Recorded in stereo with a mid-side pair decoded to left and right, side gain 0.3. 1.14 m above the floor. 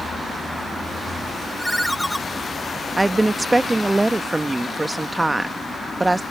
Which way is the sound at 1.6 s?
Straight ahead.